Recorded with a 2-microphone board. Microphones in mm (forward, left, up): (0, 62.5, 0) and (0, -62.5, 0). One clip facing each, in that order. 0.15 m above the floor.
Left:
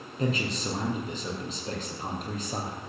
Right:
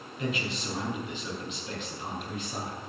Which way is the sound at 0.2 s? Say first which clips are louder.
Left 4 dB; 35° left (ahead or behind).